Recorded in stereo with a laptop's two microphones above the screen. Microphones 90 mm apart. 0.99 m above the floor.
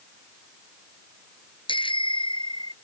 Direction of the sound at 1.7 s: 75° left (ahead or behind).